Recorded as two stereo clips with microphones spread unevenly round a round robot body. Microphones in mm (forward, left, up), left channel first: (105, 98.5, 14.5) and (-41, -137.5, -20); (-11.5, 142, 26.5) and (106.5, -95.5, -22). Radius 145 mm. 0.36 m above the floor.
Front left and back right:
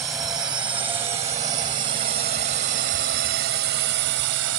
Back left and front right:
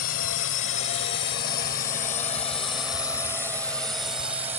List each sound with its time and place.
0.0 s a drone: 155° left; by 4.6 s 135° right